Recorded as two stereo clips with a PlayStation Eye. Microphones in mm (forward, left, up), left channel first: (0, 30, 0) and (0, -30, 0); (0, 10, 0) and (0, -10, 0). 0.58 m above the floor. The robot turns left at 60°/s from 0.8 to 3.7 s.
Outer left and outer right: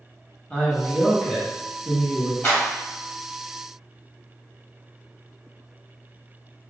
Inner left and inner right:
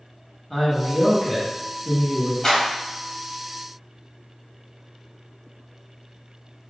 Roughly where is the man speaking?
Centre.